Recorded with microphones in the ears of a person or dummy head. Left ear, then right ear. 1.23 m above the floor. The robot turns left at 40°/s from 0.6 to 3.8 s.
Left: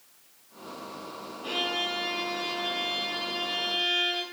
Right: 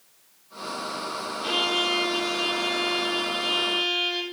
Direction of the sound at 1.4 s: 70° right.